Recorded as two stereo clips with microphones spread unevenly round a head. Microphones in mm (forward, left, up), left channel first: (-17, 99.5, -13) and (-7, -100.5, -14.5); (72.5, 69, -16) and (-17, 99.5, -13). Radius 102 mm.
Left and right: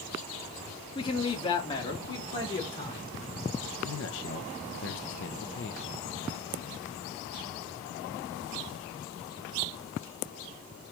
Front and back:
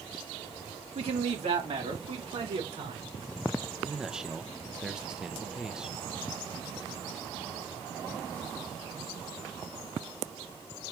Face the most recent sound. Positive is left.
turn(degrees=80)